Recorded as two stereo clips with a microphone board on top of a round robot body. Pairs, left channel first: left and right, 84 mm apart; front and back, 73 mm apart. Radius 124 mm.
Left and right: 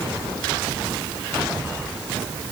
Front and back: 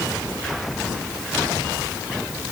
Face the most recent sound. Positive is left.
No sound to turn to.